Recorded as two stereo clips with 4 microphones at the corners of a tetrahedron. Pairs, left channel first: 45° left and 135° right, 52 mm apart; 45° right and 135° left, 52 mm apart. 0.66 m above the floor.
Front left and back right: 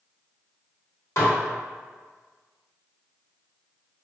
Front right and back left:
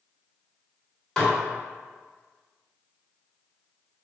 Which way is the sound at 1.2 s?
35° left.